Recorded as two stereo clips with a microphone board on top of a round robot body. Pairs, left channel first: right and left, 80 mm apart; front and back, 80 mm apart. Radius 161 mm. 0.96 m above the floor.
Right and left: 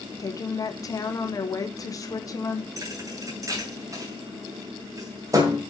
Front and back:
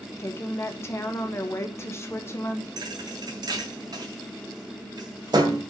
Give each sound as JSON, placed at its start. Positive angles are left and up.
{"t": 0.2, "sound": "a woman speaking", "azimuth_deg": -55, "distance_m": 1.3}
{"t": 2.8, "sound": "a thud", "azimuth_deg": 140, "distance_m": 2.0}